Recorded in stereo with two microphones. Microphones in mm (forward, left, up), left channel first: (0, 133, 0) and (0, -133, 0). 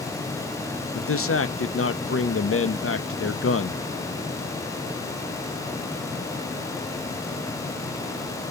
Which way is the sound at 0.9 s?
55° left (ahead or behind).